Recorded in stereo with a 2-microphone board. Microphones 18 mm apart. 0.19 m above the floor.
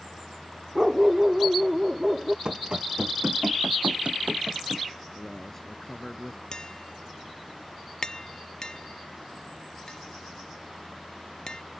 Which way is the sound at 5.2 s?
25° left (ahead or behind).